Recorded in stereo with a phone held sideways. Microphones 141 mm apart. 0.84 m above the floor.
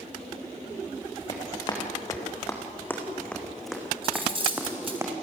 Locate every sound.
1.3 s running footsteps: 35° left (ahead or behind), 4 m; by 5.0 s 20° right (ahead or behind), 3.5 m
4.0 s cutlery clinking: 40° right (ahead or behind), 3.5 m